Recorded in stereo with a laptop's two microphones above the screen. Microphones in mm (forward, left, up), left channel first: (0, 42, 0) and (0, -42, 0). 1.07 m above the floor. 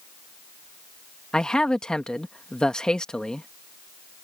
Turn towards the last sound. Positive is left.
turn(degrees=10)  # may be behind; listen again after turning